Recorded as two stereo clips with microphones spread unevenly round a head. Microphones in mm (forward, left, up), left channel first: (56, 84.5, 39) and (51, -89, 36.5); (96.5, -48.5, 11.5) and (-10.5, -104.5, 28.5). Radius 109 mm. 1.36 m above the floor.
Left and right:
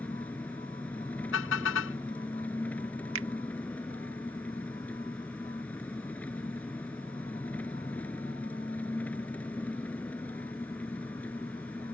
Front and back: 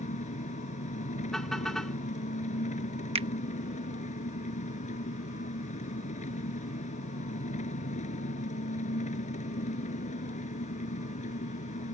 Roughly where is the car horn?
Behind left.